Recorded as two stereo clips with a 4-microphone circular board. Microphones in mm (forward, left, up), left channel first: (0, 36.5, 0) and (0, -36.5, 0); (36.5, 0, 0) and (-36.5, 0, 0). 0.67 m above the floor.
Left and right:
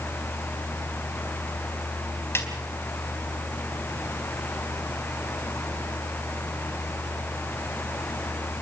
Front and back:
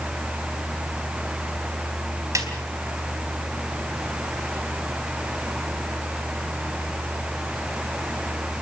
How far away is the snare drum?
About 3.5 m.